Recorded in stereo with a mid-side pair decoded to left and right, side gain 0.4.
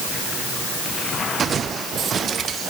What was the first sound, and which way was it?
Only background noise.